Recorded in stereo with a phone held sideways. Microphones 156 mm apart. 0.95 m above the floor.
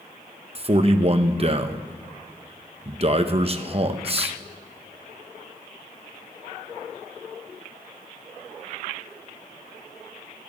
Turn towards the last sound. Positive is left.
turn(degrees=-40)  # may be behind; listen again after turning